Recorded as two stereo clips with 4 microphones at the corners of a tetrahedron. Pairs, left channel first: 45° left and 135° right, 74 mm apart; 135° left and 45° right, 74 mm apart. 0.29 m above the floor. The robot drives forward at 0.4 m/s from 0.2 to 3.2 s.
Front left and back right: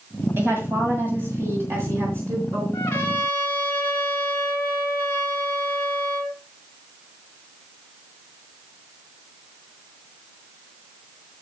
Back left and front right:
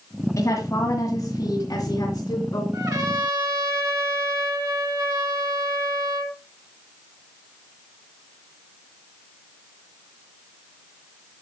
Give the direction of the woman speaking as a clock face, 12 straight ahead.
6 o'clock.